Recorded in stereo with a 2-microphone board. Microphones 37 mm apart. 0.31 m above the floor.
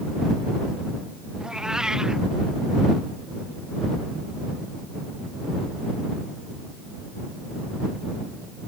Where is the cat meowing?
20° right (ahead or behind).